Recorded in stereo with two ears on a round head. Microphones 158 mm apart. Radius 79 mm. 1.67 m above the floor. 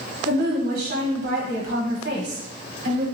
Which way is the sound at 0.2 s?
55° right (ahead or behind).